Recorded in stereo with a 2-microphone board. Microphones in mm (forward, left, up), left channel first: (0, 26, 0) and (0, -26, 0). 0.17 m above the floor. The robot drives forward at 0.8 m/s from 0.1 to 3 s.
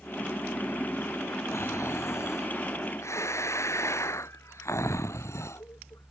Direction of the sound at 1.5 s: 80° left.